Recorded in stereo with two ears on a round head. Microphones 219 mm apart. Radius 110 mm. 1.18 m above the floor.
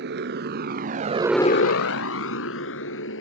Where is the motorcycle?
45° right (ahead or behind); by 3.2 s 60° left (ahead or behind).